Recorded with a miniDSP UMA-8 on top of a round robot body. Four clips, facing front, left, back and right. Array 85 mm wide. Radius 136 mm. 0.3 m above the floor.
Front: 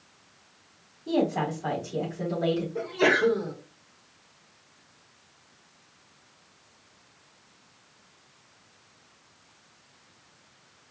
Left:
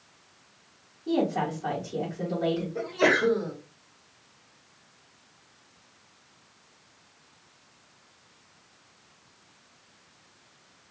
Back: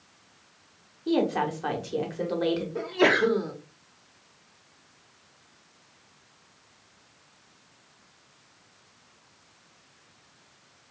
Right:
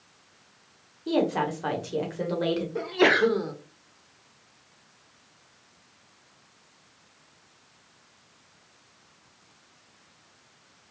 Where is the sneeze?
115° right, 1.5 m.